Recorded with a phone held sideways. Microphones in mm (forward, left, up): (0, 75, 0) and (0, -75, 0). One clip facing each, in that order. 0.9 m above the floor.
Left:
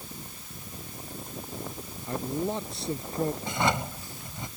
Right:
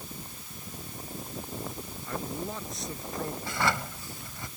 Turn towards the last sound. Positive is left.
turn(degrees=20)  # may be behind; listen again after turning